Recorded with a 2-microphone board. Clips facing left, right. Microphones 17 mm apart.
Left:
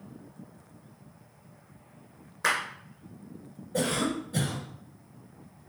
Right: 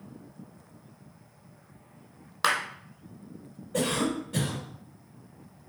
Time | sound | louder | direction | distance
2.4 | a clap | right 1 dB | 65° right (ahead or behind) | 2.5 m
3.7 | a cough | right 1 dB | 40° right (ahead or behind) | 2.5 m